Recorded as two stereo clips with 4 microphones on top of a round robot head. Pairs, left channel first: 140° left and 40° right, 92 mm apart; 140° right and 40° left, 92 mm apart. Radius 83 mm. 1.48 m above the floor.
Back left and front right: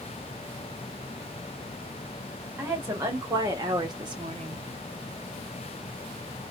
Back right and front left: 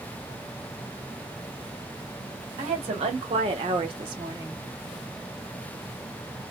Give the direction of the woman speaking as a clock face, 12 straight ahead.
11 o'clock.